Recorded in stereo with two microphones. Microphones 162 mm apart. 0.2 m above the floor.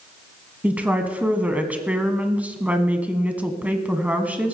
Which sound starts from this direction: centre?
A woman speaking, at 0.6 s.